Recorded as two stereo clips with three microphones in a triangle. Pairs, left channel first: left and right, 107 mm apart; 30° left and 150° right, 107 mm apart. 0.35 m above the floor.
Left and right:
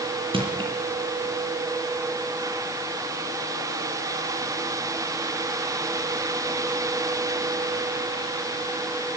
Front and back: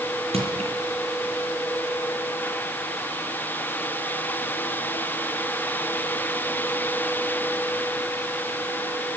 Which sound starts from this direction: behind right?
Crushing, at 0.3 s.